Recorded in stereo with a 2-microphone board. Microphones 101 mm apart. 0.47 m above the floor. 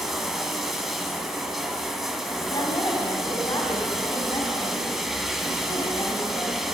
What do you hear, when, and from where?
0.0 s running water: 5° right (ahead or behind), 1.1 m
2.5 s a woman speaking: 40° left (ahead or behind), 3 m